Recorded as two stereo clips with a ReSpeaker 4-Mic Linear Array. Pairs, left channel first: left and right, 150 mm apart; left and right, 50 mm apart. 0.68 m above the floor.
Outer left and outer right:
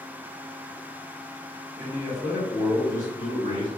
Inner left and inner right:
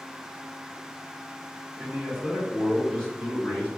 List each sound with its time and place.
1.8 s a man speaking: 5° right (ahead or behind), 1.4 m; by 3.7 s 40° left (ahead or behind), 1.4 m